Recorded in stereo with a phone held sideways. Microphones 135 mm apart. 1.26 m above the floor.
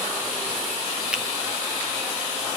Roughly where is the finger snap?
Centre.